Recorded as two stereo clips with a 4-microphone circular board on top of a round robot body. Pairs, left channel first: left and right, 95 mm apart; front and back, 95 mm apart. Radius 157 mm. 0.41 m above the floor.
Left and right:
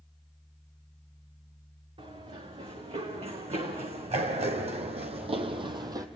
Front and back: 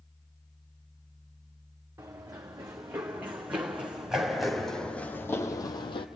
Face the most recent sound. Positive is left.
turn(degrees=-35)